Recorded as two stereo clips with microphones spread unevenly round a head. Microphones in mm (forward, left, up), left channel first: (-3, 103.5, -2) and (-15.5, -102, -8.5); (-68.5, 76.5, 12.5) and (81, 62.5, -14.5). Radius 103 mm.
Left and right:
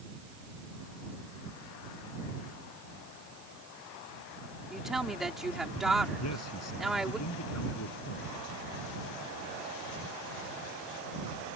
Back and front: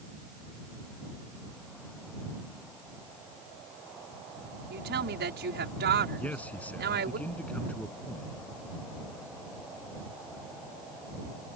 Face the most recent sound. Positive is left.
turn(degrees=95)